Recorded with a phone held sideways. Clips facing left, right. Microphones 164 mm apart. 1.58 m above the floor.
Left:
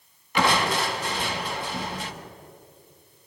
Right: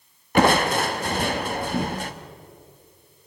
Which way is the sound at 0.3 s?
45° right (ahead or behind).